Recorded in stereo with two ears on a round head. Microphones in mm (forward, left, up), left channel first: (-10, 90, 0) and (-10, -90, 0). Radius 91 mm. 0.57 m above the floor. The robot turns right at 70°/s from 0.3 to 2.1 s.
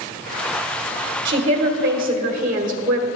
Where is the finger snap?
I don't hear a finger snap.